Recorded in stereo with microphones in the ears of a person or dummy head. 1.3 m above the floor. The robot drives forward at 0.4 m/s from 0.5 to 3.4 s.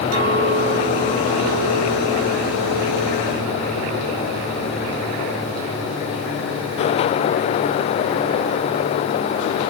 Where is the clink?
80° right, 5.5 m; by 4.3 s 85° right, 5.5 m.